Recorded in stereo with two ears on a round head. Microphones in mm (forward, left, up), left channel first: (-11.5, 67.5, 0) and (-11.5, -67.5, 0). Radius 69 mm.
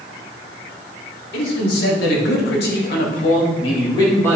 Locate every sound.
1.3 s a man speaking: 75° left (ahead or behind), 4 m; by 4.4 s 10° left (ahead or behind), 2.5 m